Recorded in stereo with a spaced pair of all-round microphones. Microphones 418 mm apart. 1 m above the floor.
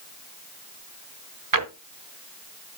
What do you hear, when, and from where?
1.5 s a drawer: 45° right (ahead or behind), 1.0 m